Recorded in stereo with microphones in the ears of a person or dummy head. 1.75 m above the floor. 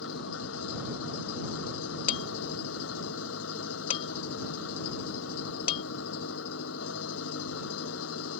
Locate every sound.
0.0 s an engine running: 70° left (ahead or behind)
2.1 s dishes clattering: 45° left (ahead or behind)